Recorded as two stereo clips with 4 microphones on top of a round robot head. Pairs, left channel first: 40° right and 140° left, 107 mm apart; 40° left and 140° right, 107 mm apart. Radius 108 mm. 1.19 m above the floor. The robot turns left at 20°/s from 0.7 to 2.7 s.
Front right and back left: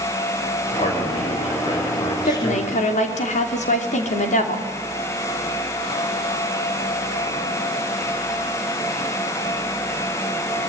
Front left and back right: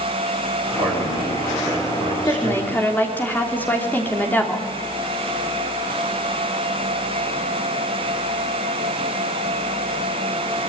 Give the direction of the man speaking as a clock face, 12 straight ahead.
2 o'clock.